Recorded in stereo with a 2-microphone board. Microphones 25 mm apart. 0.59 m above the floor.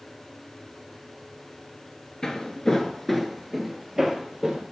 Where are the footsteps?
30° left (ahead or behind), 0.6 m; by 4.6 s 15° right (ahead or behind), 1.1 m.